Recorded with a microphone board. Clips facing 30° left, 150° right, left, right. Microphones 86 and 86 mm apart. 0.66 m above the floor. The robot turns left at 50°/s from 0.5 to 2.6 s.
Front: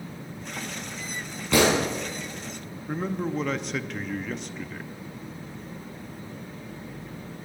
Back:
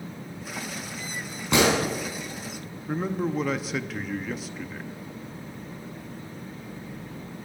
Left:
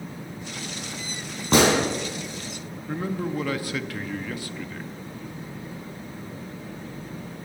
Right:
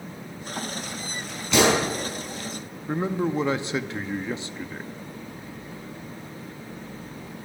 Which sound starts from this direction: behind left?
A gunshot, at 1.5 s.